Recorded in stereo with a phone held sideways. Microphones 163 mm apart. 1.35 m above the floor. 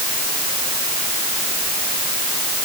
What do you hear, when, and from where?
Only background noise.